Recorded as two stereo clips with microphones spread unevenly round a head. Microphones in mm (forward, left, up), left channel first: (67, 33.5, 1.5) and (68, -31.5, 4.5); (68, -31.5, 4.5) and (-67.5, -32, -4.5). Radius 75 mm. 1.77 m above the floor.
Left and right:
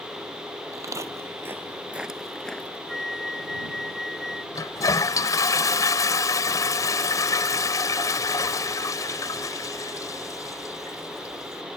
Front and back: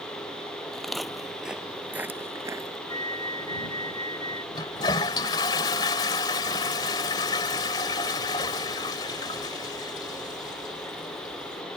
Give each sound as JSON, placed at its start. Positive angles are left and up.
{"t": 0.7, "sound": "footsteps", "azimuth_deg": -85}
{"t": 2.9, "sound": "a flute", "azimuth_deg": 5}
{"t": 4.5, "sound": "a toilet flushing", "azimuth_deg": 65}